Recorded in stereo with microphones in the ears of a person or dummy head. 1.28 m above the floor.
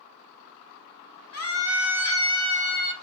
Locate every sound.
1.3 s a scream: 75° left (ahead or behind), 1.9 m; by 2.9 s 60° left (ahead or behind), 1.8 m